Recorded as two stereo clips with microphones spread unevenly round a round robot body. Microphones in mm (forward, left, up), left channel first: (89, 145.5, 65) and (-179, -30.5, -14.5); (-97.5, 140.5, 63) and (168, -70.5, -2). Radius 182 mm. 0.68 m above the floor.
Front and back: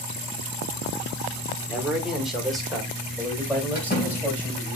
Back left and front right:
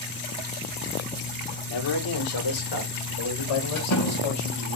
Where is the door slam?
100° left, 4 m.